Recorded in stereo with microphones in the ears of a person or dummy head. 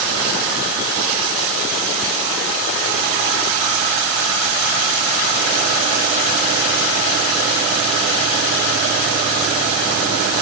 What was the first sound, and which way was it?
Only background noise.